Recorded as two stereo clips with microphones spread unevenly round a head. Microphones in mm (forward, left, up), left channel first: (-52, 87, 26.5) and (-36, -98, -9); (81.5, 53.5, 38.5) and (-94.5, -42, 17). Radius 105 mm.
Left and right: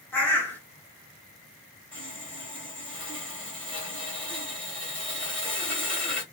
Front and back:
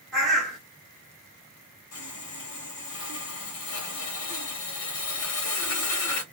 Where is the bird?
100° left, 0.9 m.